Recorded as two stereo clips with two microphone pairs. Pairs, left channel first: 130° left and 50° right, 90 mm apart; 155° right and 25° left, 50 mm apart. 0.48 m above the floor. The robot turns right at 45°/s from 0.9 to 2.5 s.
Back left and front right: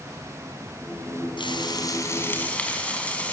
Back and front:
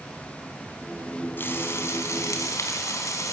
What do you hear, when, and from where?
1.4 s frying: 155° left, 3.5 m; by 3.3 s 155° right, 3.5 m